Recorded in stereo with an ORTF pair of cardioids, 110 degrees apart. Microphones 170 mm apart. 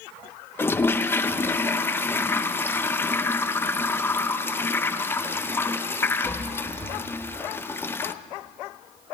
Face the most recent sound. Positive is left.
turn(degrees=15)